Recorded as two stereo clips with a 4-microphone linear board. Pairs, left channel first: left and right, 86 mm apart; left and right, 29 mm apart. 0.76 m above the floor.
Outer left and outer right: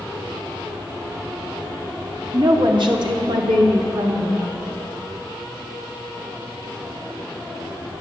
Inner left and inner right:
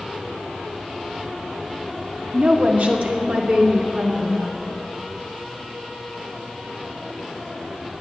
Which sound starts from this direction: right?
A woman speaking, at 2.3 s.